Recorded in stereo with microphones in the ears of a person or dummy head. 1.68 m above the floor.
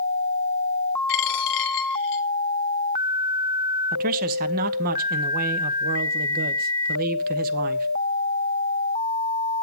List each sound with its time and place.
1.1 s a dropped coin: 55° left (ahead or behind), 1.9 m
3.9 s a man speaking: 45° right (ahead or behind), 0.8 m